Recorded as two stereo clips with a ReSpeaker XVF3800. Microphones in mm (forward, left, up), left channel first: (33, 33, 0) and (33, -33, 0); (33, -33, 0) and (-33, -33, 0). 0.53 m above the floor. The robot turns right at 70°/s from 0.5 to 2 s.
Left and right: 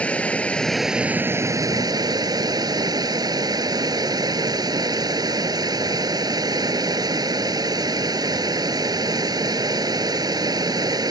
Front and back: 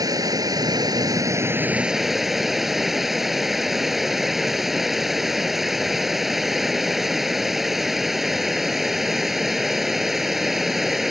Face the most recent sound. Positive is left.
turn(degrees=-95)